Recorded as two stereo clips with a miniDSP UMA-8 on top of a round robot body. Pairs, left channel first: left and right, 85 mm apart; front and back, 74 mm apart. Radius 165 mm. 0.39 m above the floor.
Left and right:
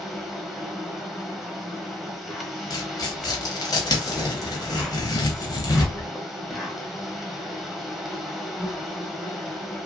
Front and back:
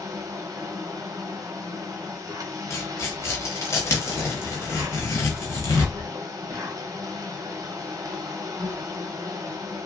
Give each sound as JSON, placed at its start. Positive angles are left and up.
{"t": 0.0, "sound": "an insect", "azimuth_deg": -175, "distance_m": 0.9}
{"t": 2.7, "sound": "tearing paper", "azimuth_deg": 50, "distance_m": 0.8}